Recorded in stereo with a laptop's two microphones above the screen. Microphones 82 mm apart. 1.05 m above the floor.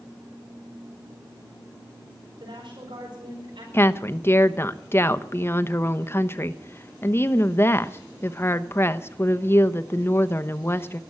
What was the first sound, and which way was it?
A woman speaking, 85° right.